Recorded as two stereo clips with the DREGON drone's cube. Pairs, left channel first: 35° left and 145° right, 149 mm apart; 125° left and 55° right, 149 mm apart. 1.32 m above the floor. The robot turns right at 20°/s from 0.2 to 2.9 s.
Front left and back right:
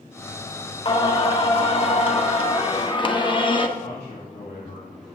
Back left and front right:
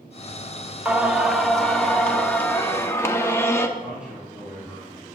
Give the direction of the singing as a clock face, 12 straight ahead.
11 o'clock.